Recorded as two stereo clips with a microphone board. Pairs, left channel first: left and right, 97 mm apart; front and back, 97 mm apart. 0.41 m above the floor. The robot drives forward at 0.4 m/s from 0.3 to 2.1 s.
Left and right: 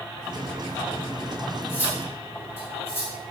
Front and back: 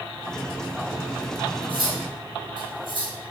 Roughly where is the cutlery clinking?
Behind left.